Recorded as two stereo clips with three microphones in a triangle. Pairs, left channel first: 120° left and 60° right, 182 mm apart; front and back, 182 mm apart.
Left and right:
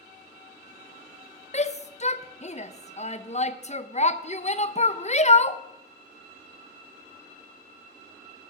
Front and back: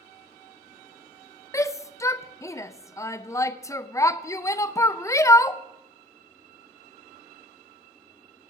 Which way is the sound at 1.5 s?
75° left.